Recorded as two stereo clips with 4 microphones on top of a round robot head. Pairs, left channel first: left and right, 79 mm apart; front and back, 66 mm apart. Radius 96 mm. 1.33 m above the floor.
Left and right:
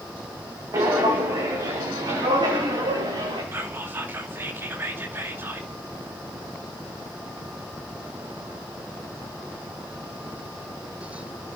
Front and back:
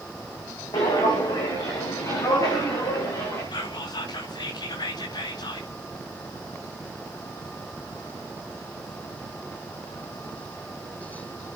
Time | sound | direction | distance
0.7 | footsteps | 35° right | 5 m
3.5 | whispering | 25° right | 2.5 m